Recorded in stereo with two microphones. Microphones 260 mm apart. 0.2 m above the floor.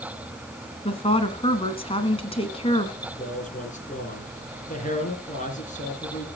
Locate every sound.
0.8 s a woman speaking: 20° left (ahead or behind), 1.5 m
3.0 s a man speaking: 30° left (ahead or behind), 3 m